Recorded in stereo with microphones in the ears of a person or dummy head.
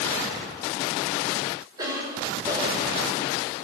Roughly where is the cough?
Right.